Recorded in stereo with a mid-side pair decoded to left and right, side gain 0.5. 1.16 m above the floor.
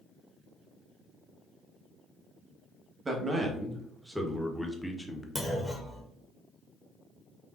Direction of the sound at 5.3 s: 10° left.